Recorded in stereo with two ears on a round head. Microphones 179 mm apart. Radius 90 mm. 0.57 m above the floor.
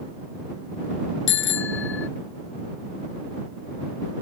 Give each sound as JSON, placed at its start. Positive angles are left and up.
{"t": 1.3, "sound": "a bicycle bell", "side_deg": 70}